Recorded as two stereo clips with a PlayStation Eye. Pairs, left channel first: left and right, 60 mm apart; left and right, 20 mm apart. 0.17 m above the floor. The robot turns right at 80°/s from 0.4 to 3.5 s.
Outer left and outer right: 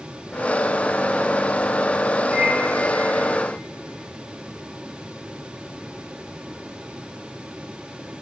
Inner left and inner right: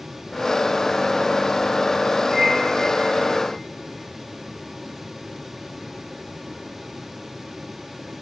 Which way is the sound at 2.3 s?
20° right (ahead or behind).